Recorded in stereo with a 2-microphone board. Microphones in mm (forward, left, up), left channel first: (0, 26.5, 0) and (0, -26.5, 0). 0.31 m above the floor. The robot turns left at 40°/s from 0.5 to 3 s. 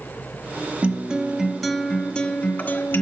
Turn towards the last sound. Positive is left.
turn(degrees=125)